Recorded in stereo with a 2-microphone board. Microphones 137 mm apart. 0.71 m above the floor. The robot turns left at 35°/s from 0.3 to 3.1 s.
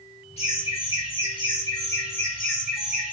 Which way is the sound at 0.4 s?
80° left.